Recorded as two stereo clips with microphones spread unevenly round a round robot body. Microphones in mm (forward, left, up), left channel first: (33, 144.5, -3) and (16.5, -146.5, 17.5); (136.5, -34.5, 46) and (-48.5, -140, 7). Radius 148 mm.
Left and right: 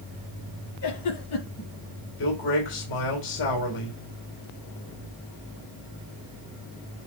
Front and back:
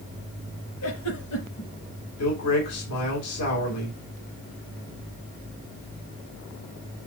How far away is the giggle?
About 5 m.